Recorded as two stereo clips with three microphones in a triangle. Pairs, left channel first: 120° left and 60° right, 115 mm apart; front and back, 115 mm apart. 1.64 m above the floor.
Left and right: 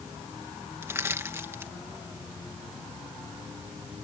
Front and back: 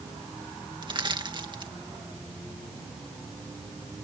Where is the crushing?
130° right.